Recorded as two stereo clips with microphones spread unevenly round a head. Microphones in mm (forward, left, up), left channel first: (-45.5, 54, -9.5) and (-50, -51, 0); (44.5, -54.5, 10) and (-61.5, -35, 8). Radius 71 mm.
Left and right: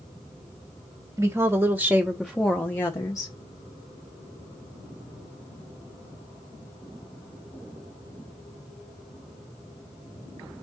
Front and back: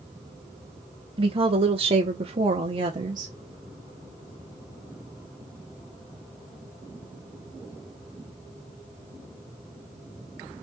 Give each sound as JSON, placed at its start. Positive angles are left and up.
{"t": 1.2, "sound": "a woman speaking", "azimuth_deg": -155, "distance_m": 1.1}